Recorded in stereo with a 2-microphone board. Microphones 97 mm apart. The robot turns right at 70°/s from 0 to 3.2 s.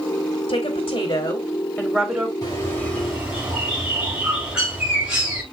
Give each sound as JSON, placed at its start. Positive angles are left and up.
{"t": 0.5, "sound": "a woman speaking", "azimuth_deg": 70, "distance_m": 3.5}
{"t": 2.4, "sound": "a bird", "azimuth_deg": 135, "distance_m": 6.5}